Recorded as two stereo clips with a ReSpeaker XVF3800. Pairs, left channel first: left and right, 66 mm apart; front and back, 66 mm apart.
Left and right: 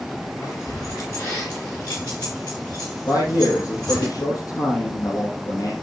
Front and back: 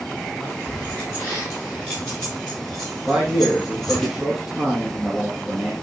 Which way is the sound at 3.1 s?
100° left.